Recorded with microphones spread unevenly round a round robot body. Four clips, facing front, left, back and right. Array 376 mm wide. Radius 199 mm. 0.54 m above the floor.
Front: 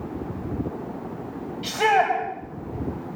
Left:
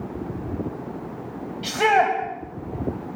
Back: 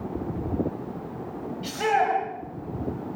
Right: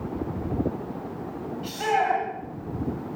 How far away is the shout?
About 4 m.